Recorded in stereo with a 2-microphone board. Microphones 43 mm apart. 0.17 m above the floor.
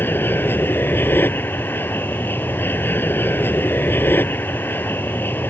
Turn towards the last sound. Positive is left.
turn(degrees=55)  # may be behind; listen again after turning